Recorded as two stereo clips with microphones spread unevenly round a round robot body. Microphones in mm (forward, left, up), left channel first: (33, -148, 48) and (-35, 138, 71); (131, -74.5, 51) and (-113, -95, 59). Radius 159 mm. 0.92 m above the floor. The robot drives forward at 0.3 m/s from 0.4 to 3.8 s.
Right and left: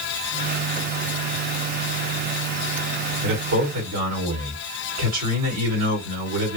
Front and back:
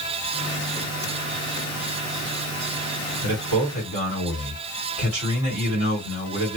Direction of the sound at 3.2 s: 140° left.